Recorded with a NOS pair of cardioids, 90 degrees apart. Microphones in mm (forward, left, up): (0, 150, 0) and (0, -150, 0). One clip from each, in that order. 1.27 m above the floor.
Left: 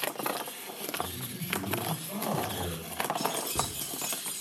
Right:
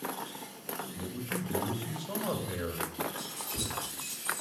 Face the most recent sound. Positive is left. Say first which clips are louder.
# left 7 dB
turn(degrees=50)